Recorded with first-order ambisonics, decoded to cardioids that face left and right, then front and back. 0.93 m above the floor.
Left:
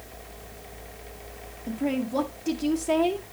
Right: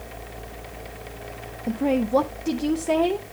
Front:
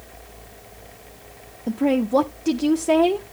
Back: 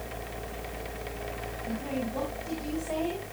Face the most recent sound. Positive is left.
turn(degrees=-25)